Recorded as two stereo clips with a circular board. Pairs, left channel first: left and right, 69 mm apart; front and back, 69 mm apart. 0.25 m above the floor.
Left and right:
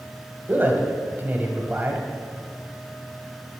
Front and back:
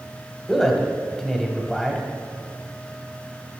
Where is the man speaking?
85° right, 1.0 m.